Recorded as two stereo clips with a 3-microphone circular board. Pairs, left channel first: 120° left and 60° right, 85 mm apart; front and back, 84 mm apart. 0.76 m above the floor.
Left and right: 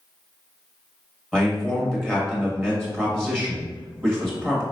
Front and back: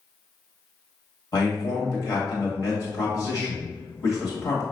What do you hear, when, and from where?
1.3 s a man speaking: 35° left, 1.6 m